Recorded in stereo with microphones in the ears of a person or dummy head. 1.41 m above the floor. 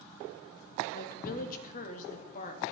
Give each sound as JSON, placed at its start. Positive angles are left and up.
{"t": 0.9, "sound": "a woman speaking", "side_deg": 50, "distance_m": 2.5}